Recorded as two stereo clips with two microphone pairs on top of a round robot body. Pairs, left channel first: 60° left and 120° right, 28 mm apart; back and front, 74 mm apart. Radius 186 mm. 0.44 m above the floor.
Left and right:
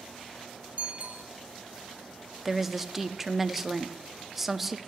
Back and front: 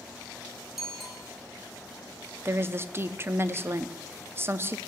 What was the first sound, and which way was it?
A bicycle bell, 85° right.